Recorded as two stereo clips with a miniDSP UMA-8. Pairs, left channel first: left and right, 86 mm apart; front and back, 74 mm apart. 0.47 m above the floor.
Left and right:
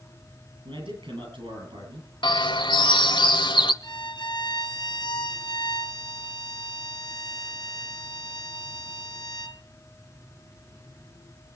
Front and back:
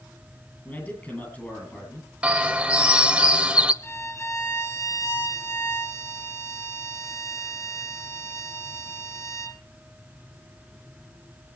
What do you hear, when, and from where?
0.7 s a man speaking: 70° right, 9 m
2.2 s a bird: 105° left, 1.1 m
3.8 s a violin: 55° left, 1.0 m